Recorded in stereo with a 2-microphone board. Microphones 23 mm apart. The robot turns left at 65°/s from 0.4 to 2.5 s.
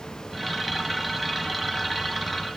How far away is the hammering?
No hammering in this recording.